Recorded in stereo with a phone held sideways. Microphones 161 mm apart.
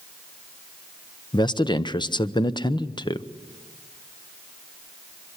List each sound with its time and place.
1.3 s a man speaking: 30° left (ahead or behind), 0.8 m